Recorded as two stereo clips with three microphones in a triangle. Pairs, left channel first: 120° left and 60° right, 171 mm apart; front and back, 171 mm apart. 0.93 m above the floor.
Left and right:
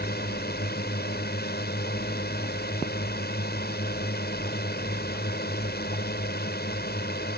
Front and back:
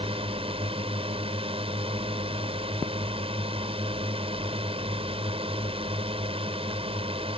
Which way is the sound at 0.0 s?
125° left.